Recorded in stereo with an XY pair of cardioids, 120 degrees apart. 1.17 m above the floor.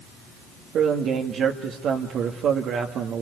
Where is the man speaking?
60° right, 2 m.